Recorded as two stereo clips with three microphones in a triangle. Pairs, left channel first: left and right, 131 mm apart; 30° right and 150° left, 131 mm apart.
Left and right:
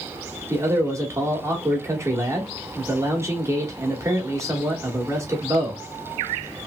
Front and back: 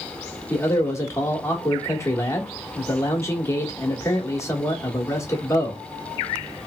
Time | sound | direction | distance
0.5 | a man speaking | 60° right | 1.0 m